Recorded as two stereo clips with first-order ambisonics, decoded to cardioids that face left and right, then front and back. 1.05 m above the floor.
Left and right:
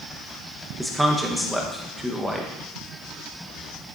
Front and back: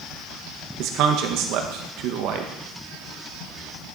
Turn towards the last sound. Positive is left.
turn(degrees=180)